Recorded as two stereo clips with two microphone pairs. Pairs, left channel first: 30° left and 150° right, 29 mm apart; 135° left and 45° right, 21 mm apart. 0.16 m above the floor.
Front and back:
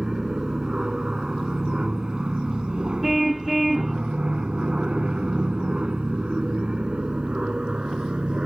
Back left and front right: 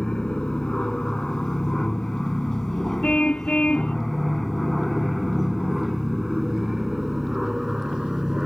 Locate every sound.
0.0 s an aircraft: 150° left; by 8.5 s 105° right
3.0 s a car horn: 125° left